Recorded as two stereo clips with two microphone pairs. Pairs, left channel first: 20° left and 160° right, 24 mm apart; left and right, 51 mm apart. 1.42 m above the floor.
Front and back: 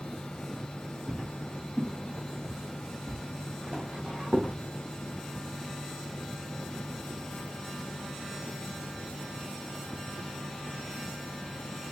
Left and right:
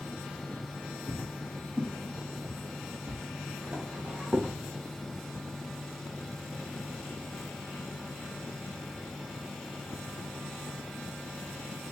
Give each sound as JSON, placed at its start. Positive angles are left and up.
{"t": 1.1, "sound": "footsteps", "azimuth_deg": 160, "distance_m": 2.0}